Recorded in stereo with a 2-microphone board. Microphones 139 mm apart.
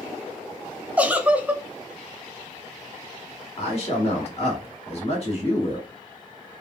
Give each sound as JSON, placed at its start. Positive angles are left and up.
{"t": 1.0, "sound": "a giggle", "side_deg": -10, "distance_m": 0.5}
{"t": 3.6, "sound": "a man speaking", "side_deg": 50, "distance_m": 1.6}